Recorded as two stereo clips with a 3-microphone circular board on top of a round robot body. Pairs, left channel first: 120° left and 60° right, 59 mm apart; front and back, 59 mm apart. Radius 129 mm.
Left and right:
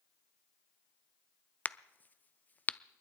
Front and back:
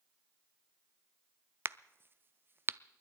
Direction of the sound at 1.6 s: 160° left.